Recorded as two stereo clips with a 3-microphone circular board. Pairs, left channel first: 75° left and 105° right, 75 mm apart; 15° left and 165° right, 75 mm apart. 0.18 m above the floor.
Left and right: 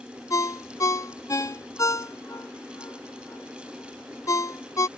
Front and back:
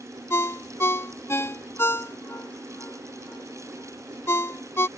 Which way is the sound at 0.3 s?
60° left.